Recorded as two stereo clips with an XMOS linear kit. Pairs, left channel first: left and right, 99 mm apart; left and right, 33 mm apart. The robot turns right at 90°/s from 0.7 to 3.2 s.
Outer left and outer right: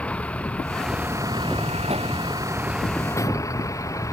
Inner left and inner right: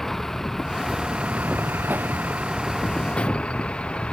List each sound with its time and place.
0.0 s a vehicle: 165° left; by 4.2 s 30° left